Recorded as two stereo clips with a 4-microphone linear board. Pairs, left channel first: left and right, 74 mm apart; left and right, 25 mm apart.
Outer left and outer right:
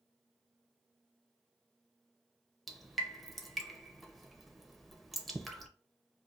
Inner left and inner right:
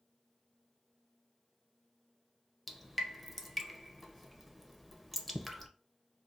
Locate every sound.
2.7 s dripping: centre (ahead or behind), 0.6 m